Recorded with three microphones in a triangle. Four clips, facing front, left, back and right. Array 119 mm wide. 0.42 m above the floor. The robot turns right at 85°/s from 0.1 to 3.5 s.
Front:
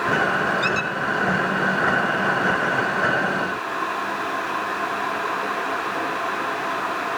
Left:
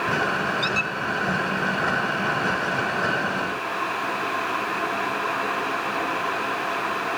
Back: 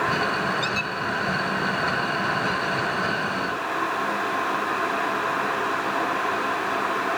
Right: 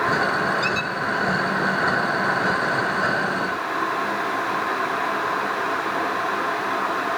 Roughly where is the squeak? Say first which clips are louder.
Right 2 dB, front 4 dB; ahead.